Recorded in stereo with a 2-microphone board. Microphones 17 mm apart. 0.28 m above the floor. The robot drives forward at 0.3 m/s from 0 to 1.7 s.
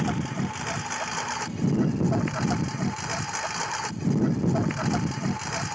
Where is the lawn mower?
10° right (ahead or behind).